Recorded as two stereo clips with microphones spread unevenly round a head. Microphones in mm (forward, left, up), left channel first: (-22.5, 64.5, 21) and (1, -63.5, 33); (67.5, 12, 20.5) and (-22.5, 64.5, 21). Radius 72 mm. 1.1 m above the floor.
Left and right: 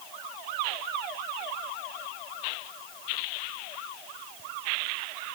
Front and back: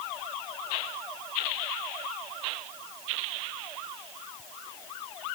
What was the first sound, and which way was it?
Only background noise.